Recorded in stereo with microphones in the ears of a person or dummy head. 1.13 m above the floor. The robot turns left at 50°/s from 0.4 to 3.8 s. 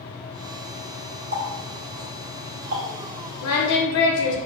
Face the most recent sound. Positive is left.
turn(degrees=70)  # may be behind; listen again after turning